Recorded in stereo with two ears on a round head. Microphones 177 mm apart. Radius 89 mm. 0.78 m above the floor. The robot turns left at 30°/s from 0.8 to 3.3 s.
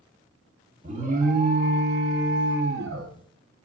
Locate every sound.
0.8 s an alarm: 40° right, 0.8 m; by 3.1 s 105° right, 0.8 m